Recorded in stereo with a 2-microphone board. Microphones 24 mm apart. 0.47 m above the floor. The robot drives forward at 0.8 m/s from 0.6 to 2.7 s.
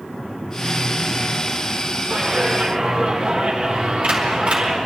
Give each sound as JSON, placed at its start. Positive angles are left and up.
{"t": 2.1, "sound": "a clap", "side_deg": -70, "distance_m": 4.0}